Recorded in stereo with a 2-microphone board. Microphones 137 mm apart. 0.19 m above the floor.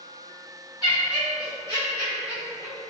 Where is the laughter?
35° left (ahead or behind), 2.0 m; by 2.9 s 10° left (ahead or behind), 1.7 m.